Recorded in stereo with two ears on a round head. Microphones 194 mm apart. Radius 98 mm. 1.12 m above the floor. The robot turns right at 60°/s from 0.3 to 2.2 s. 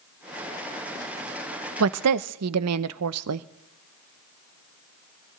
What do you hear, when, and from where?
1.8 s a woman speaking: 80° right, 0.5 m